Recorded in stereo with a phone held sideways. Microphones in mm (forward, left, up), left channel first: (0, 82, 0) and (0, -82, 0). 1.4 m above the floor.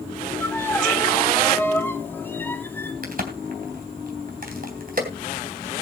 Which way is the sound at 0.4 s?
10° left (ahead or behind).